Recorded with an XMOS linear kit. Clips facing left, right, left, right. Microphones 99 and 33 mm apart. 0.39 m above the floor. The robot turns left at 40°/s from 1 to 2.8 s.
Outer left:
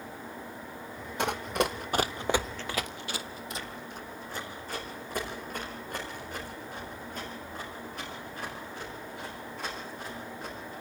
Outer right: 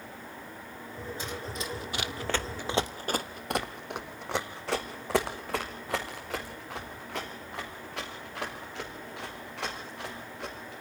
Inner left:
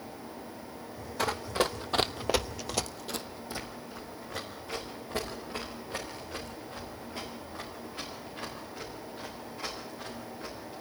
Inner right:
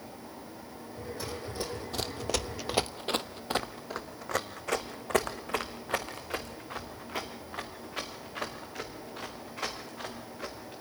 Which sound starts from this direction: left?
Running footsteps, at 1.2 s.